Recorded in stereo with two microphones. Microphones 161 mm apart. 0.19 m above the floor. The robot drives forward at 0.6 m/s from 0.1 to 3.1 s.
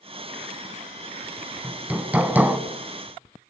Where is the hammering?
10° right (ahead or behind), 1.6 m.